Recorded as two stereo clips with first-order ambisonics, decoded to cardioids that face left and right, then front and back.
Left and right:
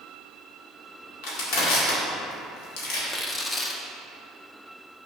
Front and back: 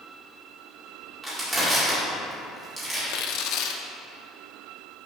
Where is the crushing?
100° left, 1.9 m.